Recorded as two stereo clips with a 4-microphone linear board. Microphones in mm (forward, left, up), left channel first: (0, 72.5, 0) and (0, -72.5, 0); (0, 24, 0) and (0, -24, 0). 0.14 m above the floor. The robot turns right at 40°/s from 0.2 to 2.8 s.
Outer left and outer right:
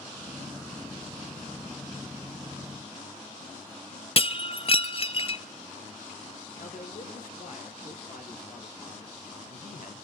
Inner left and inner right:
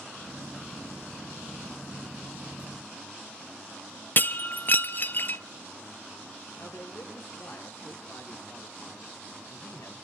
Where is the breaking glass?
40° left (ahead or behind), 0.7 m.